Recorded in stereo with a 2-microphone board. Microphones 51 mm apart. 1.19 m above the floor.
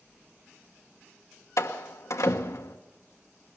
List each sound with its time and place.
1.6 s a door slam: 85° left, 1.3 m